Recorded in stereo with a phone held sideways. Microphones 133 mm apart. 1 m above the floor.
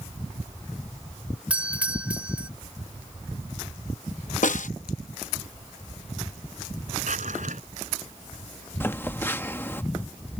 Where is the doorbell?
10° right (ahead or behind).